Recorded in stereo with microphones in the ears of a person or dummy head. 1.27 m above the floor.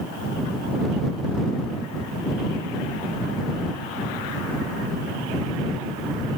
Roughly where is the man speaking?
No man speaking in this recording.